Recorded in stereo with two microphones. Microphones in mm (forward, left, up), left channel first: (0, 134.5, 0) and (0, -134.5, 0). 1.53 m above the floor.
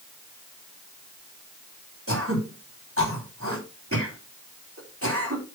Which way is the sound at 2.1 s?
50° right (ahead or behind).